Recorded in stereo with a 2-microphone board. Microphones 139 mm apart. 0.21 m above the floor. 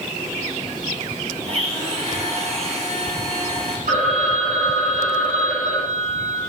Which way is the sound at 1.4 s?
50° right (ahead or behind).